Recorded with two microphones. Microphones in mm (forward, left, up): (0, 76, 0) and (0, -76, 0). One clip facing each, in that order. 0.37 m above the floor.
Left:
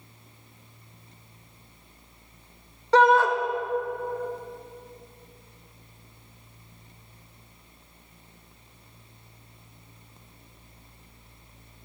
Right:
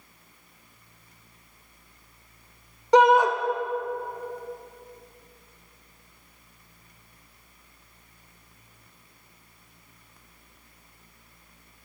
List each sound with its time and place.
2.9 s a shout: 15° right (ahead or behind), 0.9 m